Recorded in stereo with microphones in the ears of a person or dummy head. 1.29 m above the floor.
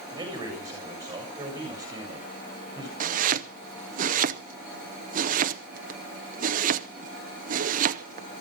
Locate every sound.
0.1 s a man speaking: 10° right (ahead or behind), 7.5 m
3.0 s chopping: 40° right (ahead or behind), 0.6 m